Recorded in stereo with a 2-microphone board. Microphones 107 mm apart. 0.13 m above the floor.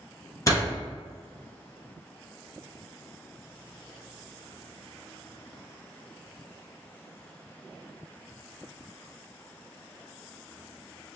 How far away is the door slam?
About 1.4 m.